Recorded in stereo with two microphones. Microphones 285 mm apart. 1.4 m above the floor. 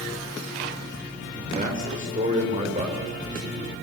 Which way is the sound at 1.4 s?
25° right (ahead or behind).